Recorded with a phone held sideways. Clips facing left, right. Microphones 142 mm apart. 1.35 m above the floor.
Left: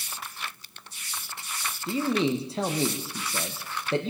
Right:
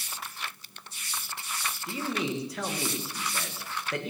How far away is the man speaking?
About 1.3 m.